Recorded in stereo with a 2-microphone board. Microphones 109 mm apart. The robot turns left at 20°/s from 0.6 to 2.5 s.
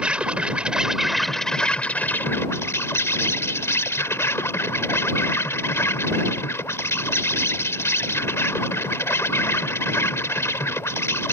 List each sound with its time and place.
0.0 s an insect: 170° right; by 11.3 s 155° left